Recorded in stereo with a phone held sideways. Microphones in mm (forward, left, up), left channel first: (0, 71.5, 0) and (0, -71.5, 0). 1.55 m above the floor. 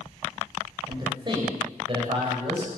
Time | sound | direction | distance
0.9 | a man speaking | 30° right (ahead or behind) | 7.5 m